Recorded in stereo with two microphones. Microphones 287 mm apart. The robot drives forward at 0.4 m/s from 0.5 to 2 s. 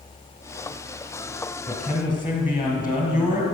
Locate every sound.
1.7 s a man speaking: 30° left (ahead or behind), 2 m